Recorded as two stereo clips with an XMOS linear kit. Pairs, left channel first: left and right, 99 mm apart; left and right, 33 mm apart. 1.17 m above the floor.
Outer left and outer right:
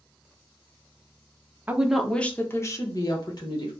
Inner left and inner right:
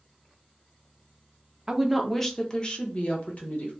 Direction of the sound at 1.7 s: 15° right (ahead or behind).